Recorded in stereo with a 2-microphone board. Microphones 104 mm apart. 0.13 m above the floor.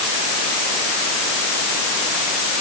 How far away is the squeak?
No squeak in this recording.